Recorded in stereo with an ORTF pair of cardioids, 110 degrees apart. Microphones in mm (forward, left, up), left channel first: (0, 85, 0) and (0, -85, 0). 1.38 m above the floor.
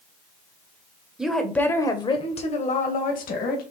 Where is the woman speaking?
5° right, 1.1 m; by 3.6 s 60° left, 1.9 m.